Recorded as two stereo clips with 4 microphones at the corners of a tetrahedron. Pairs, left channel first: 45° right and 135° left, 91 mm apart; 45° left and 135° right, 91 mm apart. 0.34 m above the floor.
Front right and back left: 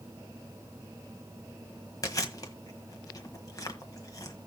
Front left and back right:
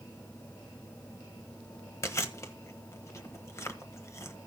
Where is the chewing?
5° right, 1.3 m.